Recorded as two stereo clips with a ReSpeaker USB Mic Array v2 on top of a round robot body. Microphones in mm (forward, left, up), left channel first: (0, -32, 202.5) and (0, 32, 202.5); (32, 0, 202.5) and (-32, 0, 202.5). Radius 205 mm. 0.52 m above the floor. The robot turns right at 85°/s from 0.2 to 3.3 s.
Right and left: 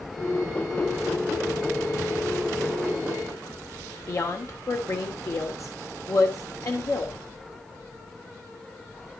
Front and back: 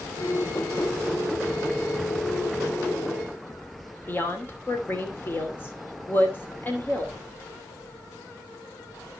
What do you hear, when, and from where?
4.1 s a woman speaking: 55° right, 3 m